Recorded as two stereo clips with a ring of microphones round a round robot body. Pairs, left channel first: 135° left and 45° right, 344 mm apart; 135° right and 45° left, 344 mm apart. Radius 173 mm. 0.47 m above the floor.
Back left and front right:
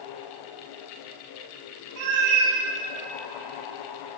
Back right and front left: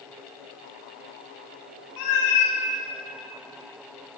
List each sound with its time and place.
2.0 s a cat meowing: 95° right, 1.2 m